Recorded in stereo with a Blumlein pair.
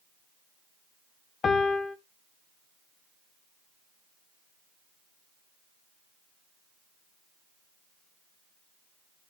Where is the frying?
I don't hear frying.